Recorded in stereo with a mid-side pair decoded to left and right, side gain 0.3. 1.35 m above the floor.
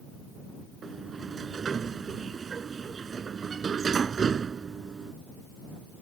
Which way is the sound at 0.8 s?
60° right.